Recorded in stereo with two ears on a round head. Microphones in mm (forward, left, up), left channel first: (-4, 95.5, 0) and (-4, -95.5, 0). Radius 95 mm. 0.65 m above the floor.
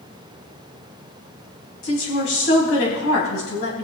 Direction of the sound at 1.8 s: 65° left (ahead or behind).